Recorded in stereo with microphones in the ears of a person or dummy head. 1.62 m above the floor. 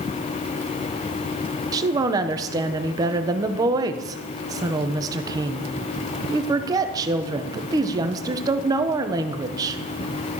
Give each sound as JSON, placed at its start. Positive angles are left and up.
{"t": 1.7, "sound": "a woman speaking", "side_deg": -25, "distance_m": 1.1}